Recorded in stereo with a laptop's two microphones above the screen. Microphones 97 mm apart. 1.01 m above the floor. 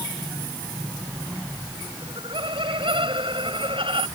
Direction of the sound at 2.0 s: 75° right (ahead or behind).